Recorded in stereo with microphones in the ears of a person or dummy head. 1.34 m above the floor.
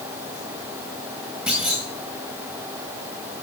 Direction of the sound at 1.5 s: 5° right (ahead or behind).